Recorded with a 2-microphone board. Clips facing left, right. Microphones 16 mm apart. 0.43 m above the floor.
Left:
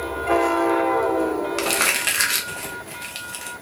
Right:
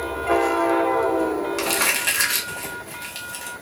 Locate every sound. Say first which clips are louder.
1.6 s crumpling: left 2 dB; 20° left (ahead or behind), 0.6 m